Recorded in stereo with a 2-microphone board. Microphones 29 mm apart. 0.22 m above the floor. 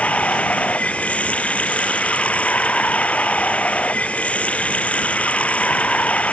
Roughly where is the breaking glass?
No breaking glass in this recording.